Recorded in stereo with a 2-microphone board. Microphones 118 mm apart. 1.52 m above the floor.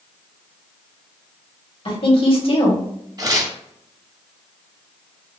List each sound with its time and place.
1.9 s a woman speaking: 50° left (ahead or behind), 2.0 m
3.2 s tearing paper: 35° right (ahead or behind), 1.5 m